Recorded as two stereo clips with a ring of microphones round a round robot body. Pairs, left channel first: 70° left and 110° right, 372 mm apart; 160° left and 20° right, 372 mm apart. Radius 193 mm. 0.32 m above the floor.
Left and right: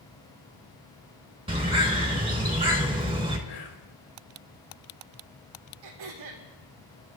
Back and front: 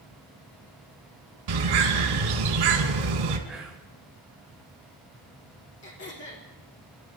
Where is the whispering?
65° left, 4.5 m.